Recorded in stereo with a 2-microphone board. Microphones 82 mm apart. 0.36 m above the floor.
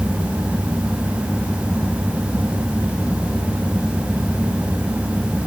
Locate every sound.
Only background noise.